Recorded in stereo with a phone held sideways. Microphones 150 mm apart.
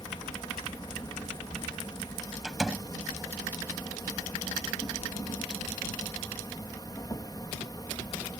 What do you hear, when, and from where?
0.0 s an insect: 30° left (ahead or behind)
2.4 s a door slam: 5° right (ahead or behind)